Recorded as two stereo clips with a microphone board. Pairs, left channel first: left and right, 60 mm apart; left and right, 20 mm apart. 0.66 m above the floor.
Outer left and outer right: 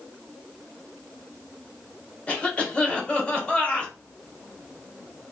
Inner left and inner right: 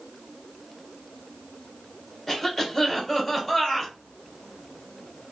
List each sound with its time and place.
2.3 s a cough: 20° left (ahead or behind), 1.5 m